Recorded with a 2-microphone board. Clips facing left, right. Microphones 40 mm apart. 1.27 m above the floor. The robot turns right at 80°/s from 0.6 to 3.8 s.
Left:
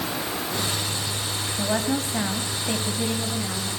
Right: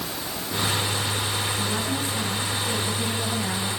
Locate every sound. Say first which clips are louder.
1.6 s a woman speaking: left 2 dB; 55° left, 9 m; by 3.7 s 135° right, 9 m